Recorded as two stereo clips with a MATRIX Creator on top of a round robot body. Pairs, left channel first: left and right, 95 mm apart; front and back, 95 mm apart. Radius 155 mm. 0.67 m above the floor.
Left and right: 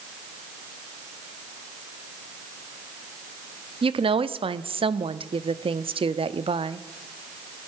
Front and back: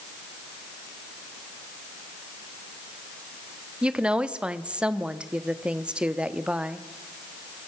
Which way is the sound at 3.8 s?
100° right.